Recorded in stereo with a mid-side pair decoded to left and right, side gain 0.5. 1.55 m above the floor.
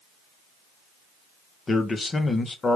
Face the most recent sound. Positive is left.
turn(degrees=30)